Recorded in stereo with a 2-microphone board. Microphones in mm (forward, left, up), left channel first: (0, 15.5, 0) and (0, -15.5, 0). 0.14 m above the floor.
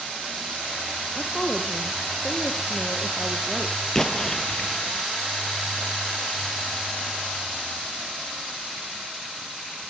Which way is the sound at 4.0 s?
15° left (ahead or behind).